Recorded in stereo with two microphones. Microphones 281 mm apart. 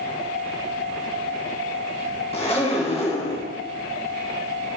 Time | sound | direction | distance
2.3 | a zipper | 25° left (ahead or behind) | 2.0 m